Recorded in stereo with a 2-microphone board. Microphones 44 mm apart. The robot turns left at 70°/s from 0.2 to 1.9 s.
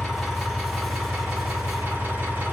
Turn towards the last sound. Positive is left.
turn(degrees=-125)